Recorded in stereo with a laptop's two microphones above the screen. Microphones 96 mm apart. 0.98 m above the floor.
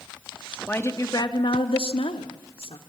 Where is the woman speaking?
20° left (ahead or behind), 1.5 m; by 2.8 s 75° left (ahead or behind), 2.5 m.